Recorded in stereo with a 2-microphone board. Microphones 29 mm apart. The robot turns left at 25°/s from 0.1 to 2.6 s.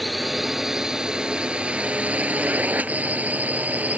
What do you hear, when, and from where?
0.0 s a drone: centre (ahead or behind); by 4.0 s 65° right (ahead or behind)